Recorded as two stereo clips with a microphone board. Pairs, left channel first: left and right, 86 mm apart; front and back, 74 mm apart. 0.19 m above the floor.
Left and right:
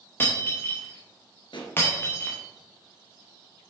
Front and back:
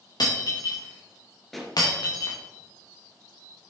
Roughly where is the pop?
Left.